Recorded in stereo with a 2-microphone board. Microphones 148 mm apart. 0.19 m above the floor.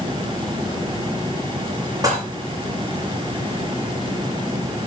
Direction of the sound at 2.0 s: 25° right (ahead or behind).